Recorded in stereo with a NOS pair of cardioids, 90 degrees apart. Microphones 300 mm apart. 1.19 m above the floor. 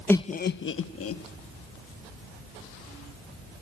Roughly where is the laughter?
Ahead.